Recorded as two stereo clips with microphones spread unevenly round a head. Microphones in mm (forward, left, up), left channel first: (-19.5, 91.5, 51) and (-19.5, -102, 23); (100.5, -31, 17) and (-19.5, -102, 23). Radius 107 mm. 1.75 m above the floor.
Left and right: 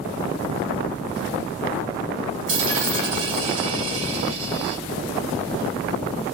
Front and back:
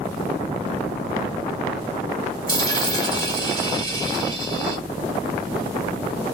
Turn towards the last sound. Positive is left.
turn(degrees=-100)